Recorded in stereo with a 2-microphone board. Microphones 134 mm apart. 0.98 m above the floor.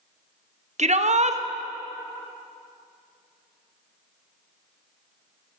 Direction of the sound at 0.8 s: 55° right (ahead or behind).